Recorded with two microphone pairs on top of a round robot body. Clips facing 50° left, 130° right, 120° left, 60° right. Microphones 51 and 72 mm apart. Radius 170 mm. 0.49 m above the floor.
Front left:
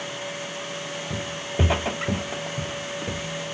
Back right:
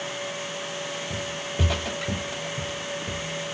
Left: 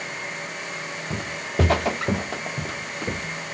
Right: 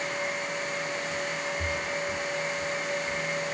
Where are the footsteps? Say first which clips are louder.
Front left 1 dB, left 3 dB; 115° left; by 3.5 s 120° left.